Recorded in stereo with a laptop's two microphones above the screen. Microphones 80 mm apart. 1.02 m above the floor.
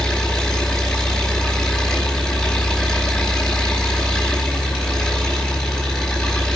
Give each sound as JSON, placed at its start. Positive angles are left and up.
{"t": 0.0, "sound": "an engine running", "side_deg": 5, "distance_m": 4.5}